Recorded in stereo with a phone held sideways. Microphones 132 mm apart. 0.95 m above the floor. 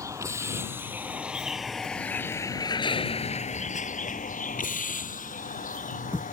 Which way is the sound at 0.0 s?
25° right (ahead or behind).